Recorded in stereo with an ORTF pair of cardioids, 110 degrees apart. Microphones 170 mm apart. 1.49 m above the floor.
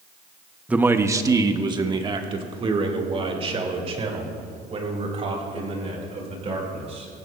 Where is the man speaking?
5° right, 0.8 m; by 7.1 s 40° right, 6 m.